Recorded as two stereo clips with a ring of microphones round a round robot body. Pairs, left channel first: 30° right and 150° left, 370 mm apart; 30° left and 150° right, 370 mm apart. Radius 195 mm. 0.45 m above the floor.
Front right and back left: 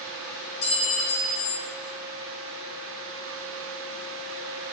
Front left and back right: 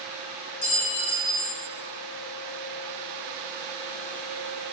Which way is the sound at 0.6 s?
35° right.